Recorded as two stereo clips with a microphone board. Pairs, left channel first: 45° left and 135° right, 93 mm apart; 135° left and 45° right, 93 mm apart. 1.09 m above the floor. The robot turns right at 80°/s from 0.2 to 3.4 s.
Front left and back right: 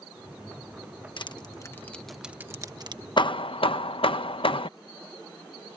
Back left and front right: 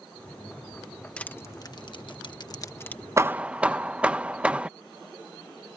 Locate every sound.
1.2 s crushing: 60° left; by 3.0 s 150° right
3.2 s hammering: 10° left; by 4.7 s 30° left